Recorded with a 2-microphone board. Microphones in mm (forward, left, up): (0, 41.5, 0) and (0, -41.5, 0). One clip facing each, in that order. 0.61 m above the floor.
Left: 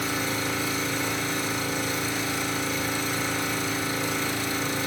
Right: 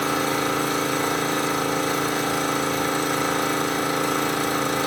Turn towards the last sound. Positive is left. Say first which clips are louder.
# right 6 dB
turn(degrees=-60)  # may be behind; listen again after turning